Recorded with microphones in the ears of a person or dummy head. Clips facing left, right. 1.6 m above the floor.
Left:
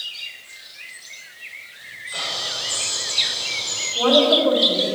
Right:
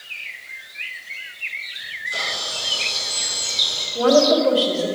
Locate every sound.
1.8 s a camera shutter: 35° right (ahead or behind), 6.5 m
4.0 s a woman speaking: 30° right (ahead or behind), 3.5 m